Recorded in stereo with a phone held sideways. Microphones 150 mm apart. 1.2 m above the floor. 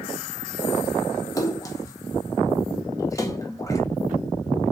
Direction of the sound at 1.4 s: 20° left (ahead or behind).